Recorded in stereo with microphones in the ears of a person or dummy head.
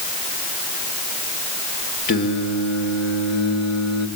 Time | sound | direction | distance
2.1 | singing | 55° left (ahead or behind) | 1.6 m